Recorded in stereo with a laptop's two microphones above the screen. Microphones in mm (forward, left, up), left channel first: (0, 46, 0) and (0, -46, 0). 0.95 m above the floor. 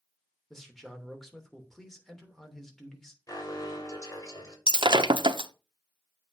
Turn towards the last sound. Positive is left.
turn(degrees=-65)  # may be behind; listen again after turning